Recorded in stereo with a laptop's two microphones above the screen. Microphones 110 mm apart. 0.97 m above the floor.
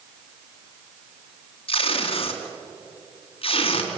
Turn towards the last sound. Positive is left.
turn(degrees=55)  # may be behind; listen again after turning